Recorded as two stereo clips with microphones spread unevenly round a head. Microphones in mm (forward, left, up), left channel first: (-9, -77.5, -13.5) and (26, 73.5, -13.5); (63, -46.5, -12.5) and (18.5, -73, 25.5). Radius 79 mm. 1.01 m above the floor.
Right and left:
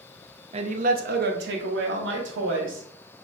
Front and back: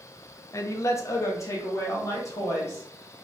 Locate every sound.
0.5 s a man speaking: 25° left, 0.6 m; by 2.9 s 75° left, 1.5 m